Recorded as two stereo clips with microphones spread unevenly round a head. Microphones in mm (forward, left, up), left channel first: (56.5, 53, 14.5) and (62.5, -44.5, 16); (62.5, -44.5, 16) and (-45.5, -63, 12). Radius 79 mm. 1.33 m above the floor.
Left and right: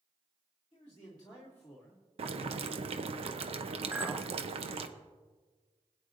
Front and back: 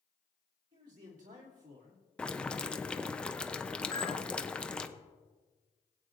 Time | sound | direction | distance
0.7 | a man speaking | 150° left | 3 m
2.2 | boiling | 70° right | 0.8 m
3.9 | a clink | 20° right | 0.8 m